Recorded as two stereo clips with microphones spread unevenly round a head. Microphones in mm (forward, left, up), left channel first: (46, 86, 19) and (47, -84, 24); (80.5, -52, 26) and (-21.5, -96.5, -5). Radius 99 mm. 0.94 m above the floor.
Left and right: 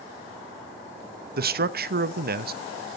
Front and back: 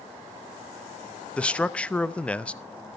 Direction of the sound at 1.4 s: 65° right.